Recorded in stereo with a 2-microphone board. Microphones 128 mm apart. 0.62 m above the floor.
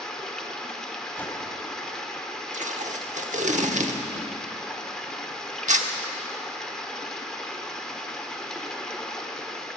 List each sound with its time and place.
0.0 s running water: 5° left (ahead or behind), 1.0 m
1.2 s a whoosh: 15° left (ahead or behind), 1.9 m
2.5 s tape being pulled: 70° right (ahead or behind), 0.9 m